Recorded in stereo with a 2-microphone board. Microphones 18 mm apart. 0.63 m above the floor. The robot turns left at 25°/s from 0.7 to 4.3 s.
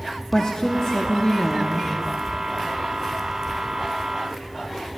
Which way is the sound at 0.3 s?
95° left.